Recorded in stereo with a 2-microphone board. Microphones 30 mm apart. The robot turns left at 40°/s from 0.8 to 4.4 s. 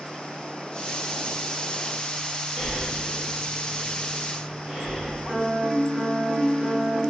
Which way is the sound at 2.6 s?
25° left (ahead or behind).